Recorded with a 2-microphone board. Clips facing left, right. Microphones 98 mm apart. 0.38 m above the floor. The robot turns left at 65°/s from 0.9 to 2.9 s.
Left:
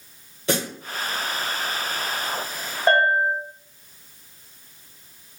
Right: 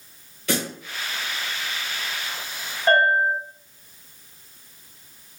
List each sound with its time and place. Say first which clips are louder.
0.5 s a snare drum: left 1 dB; 30° left (ahead or behind), 0.9 m
2.9 s a bell: even; 35° left (ahead or behind), 1.5 m